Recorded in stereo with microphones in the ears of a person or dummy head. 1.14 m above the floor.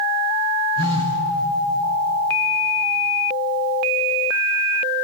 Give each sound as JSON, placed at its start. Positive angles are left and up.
{"t": 0.8, "sound": "a phone buzzing", "side_deg": -35, "distance_m": 3.5}